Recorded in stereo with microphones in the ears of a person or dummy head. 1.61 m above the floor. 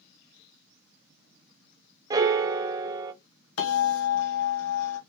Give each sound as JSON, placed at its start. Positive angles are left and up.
{"t": 2.1, "sound": "a piano", "side_deg": -25, "distance_m": 0.5}
{"t": 3.6, "sound": "a bell", "side_deg": 80, "distance_m": 1.2}